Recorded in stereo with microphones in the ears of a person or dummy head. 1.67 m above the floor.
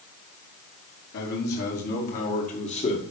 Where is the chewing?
I don't hear chewing.